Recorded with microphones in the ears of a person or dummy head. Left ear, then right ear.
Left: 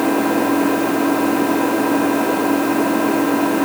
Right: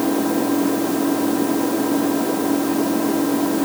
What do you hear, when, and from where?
0.0 s an engine running: 60° left (ahead or behind)